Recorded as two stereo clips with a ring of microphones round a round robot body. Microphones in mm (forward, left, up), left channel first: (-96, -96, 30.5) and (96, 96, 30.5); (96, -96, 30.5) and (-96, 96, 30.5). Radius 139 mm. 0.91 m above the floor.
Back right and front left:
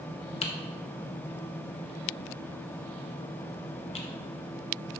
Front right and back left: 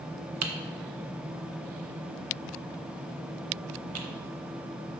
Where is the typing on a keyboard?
155° left, 0.9 m.